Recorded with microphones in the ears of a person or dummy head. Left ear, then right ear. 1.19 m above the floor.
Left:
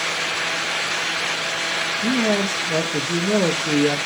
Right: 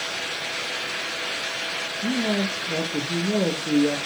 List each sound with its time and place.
2.0 s a man speaking: 55° left (ahead or behind), 1.3 m